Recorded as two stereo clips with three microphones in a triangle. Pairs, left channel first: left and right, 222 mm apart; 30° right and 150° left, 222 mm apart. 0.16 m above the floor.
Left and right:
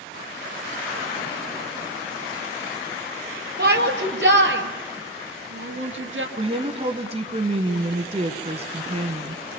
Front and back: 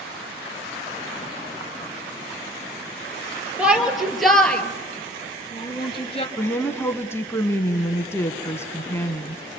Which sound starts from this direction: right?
A woman speaking, at 6.4 s.